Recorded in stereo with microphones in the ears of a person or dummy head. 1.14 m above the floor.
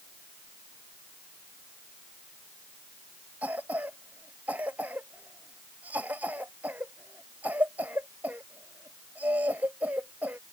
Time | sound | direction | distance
3.4 | a cough | 10° right (ahead or behind) | ?